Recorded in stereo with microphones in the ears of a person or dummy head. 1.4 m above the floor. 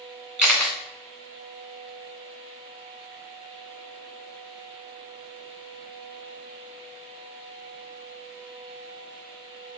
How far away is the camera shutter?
About 1.1 m.